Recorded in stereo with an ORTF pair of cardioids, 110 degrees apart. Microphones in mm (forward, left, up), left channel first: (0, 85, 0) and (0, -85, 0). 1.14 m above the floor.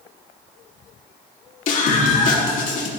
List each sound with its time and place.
1.7 s a scream: 50° left, 2.5 m